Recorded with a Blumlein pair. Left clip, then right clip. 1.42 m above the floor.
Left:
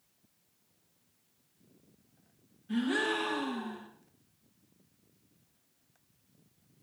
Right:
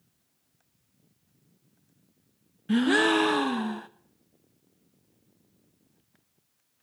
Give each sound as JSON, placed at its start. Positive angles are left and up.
{"t": 2.7, "sound": "a gasp", "azimuth_deg": -55, "distance_m": 0.8}